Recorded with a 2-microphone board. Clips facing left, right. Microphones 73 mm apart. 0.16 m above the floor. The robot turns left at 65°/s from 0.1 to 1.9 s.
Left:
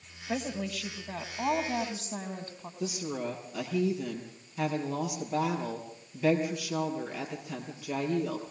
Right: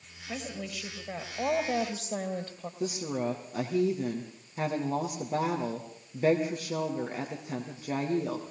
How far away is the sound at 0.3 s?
About 3 m.